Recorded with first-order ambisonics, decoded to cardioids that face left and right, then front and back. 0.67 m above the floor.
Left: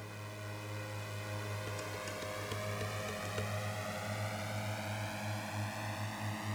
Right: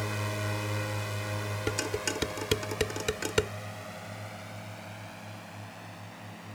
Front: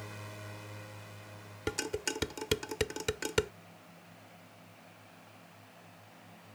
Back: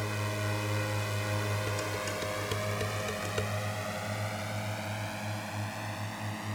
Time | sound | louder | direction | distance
0.0 | a drone | right 13 dB, back 12 dB | 130° right | ?
1.7 | dishes clattering | right 13 dB, back 2 dB | 65° right | ?